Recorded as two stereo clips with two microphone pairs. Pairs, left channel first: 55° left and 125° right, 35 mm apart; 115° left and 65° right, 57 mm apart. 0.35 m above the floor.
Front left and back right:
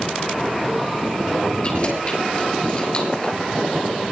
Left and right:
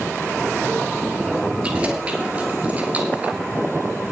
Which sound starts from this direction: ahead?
Keys jangling, at 1.6 s.